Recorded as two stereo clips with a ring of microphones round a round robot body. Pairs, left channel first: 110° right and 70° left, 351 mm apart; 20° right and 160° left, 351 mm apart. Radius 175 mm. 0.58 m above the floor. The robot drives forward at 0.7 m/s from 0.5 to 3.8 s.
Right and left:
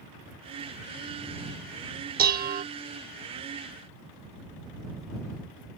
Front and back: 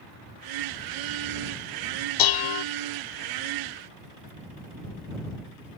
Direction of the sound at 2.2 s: 5° left.